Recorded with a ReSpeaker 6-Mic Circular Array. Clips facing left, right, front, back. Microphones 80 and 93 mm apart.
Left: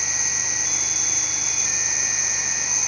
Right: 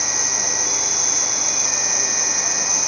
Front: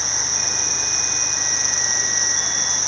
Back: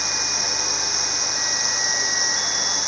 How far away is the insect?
About 2 m.